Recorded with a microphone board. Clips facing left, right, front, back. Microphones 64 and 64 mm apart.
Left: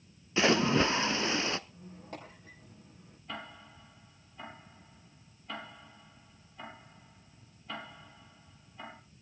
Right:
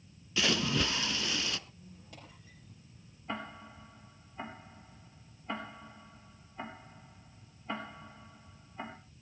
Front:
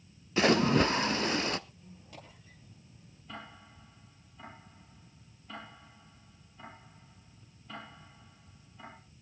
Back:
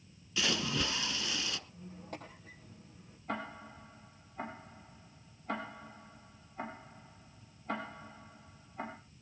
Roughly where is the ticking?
Behind right.